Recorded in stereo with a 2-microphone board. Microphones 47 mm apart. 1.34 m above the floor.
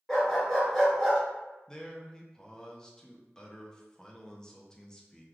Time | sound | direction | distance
0.1 | a dog barking | 5° left (ahead or behind) | 1.6 m
1.7 | a man speaking | 15° left (ahead or behind) | 0.6 m